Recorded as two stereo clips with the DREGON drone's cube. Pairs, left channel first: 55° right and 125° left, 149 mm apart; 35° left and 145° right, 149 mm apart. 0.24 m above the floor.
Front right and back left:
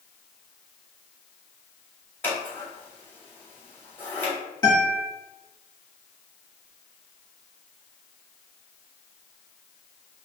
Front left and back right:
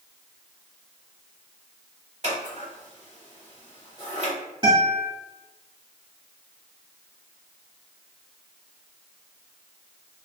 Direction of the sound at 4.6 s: 105° right.